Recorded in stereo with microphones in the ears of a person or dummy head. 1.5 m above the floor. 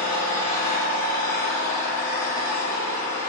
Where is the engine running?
15° left (ahead or behind), 1.3 m.